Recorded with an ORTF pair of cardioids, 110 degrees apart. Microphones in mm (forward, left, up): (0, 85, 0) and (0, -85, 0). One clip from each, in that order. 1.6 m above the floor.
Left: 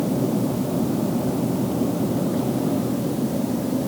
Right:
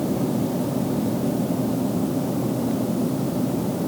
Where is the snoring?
No snoring in this recording.